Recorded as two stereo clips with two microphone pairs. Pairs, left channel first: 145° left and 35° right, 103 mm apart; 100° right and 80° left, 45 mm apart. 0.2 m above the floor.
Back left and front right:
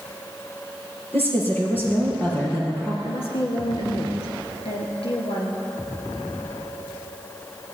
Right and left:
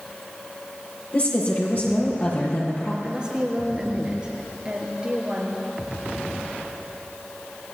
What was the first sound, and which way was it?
A woman speaking, 145° right.